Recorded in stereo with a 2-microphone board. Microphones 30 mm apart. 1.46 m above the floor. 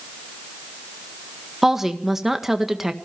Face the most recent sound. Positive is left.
turn(degrees=-15)  # may be behind; listen again after turning